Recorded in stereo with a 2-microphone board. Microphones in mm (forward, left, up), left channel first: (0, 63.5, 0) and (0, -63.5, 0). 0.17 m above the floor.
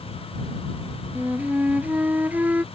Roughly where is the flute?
Centre.